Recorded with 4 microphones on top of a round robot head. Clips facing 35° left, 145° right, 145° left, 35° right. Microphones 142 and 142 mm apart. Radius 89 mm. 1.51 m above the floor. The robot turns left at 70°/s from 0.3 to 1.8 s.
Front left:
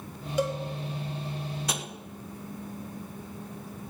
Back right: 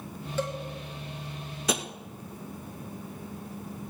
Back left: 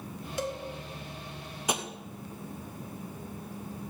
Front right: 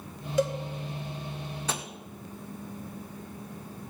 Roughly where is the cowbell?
Ahead right.